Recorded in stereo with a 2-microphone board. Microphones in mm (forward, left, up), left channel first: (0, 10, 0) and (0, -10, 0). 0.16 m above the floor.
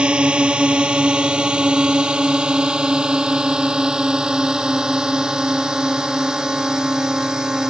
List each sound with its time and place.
0.0 s a drone: 60° right (ahead or behind); by 7.7 s 35° right (ahead or behind)